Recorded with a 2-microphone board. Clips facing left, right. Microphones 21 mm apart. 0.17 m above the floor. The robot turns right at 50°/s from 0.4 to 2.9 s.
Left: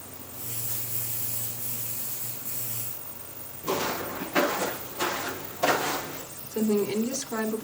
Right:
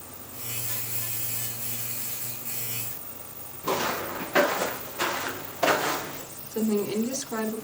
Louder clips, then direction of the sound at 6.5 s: Left 1 dB; 35° left (ahead or behind).